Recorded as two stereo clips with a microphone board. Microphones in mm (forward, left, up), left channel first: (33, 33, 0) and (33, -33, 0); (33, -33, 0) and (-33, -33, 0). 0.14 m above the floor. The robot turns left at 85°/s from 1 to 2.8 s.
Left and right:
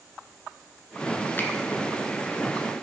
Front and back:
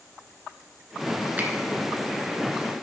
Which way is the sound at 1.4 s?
130° left.